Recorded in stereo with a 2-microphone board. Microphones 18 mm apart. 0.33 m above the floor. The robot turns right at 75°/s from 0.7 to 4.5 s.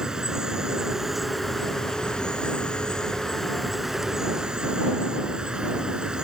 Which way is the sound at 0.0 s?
45° right.